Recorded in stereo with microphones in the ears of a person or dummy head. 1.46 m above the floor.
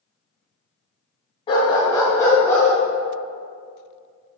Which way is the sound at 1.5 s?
30° left (ahead or behind).